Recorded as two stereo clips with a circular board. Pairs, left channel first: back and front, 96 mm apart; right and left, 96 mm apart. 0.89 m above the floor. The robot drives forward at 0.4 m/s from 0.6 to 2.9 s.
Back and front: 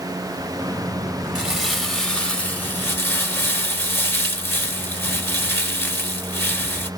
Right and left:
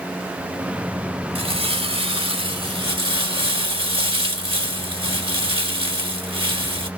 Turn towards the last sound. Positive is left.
turn(degrees=115)